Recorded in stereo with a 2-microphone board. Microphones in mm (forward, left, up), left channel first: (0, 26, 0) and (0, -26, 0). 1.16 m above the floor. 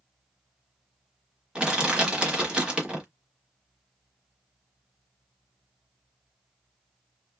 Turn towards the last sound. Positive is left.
turn(degrees=-20)  # may be behind; listen again after turning